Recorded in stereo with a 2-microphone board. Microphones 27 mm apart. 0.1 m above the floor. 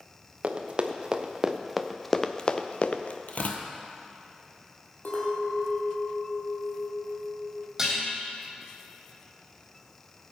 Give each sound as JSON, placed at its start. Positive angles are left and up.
{"t": 0.4, "sound": "running footsteps", "side_deg": -45, "distance_m": 1.4}
{"t": 3.3, "sound": "tearing paper", "side_deg": 60, "distance_m": 1.3}
{"t": 5.0, "sound": "a clink", "side_deg": 60, "distance_m": 3.0}
{"t": 7.8, "sound": "dishes clattering", "side_deg": -20, "distance_m": 3.0}